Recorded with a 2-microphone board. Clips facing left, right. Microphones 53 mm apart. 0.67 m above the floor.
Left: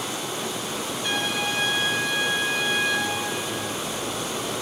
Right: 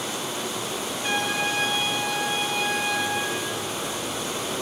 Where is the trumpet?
25° right (ahead or behind), 4.5 m.